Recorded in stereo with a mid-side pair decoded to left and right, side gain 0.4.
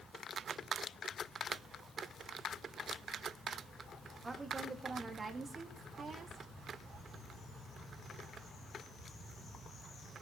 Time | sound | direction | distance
4.2 | a woman speaking | 30° right | 3 m